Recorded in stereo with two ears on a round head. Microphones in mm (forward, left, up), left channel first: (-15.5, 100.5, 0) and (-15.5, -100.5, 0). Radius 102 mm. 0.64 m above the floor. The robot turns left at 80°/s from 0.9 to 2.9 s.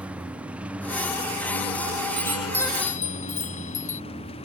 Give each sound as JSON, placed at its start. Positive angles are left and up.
{"t": 0.0, "sound": "a lawn mower", "azimuth_deg": -175}
{"t": 2.2, "sound": "a chime", "azimuth_deg": -155}